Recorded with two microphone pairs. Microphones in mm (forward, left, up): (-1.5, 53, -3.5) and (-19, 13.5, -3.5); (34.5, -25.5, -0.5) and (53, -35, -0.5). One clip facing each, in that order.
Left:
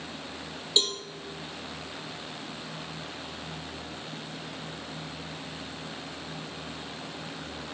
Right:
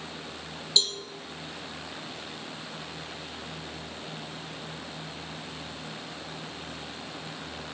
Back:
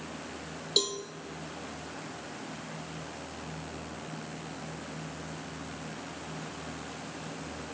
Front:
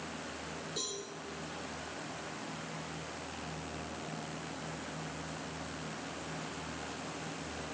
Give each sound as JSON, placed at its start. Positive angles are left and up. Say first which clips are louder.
{"t": 0.8, "sound": "a cowbell", "louder": "even, back 12 dB", "azimuth_deg": 130, "distance_m": 1.2}